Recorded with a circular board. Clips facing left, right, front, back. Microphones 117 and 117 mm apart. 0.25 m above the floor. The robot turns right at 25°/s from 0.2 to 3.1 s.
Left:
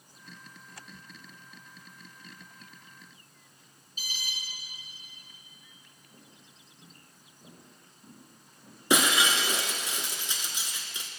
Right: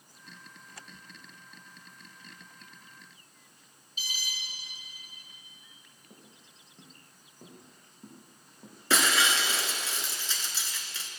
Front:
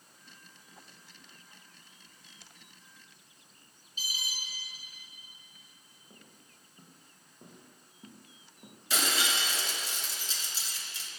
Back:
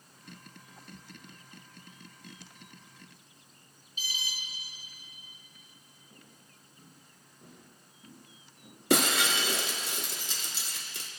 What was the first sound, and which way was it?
An alarm, 50° left.